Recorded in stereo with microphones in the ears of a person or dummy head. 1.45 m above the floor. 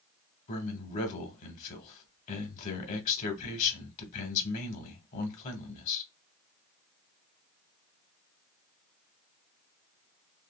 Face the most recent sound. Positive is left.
turn(degrees=45)  # may be behind; listen again after turning